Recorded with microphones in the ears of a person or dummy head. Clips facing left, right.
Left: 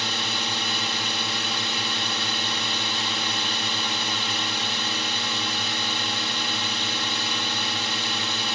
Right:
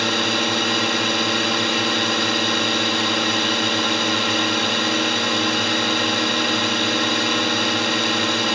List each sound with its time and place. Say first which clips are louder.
0.0 s a drone: right 10 dB; 50° right (ahead or behind)